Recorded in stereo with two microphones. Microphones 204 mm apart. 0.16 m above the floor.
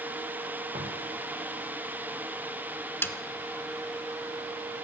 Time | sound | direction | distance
0.7 | footsteps | 40° right (ahead or behind) | 9.5 m
3.0 | a snare drum | 10° left (ahead or behind) | 1.0 m